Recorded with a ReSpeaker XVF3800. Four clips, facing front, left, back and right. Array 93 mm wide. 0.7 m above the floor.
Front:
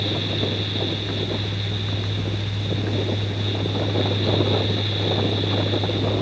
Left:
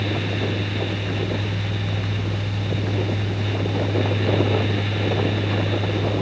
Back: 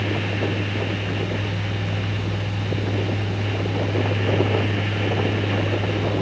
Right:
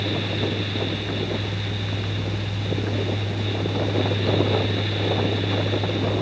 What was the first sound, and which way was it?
Only background noise.